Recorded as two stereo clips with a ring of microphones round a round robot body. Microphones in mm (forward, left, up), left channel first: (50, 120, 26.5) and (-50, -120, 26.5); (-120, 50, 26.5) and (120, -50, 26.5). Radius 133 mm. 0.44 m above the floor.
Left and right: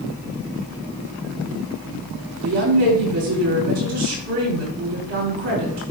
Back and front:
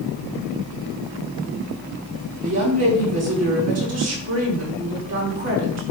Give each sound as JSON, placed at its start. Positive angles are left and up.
{"t": 2.4, "sound": "a woman speaking", "azimuth_deg": -80, "distance_m": 5.0}